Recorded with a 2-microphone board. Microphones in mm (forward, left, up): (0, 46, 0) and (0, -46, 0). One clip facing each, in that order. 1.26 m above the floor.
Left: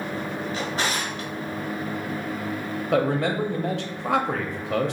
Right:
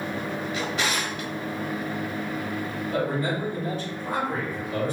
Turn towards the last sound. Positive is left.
turn(degrees=85)